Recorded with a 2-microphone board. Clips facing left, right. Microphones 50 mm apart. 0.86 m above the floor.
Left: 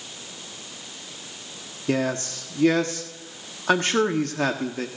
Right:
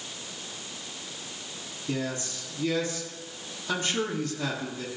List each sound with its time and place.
1.9 s a man speaking: 60° left (ahead or behind), 1.4 m